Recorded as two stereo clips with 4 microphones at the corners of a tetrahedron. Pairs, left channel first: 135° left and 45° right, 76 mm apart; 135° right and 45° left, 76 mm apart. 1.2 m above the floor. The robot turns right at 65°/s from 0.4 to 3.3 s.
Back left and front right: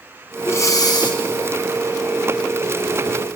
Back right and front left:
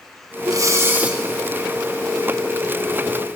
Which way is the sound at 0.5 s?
80° left.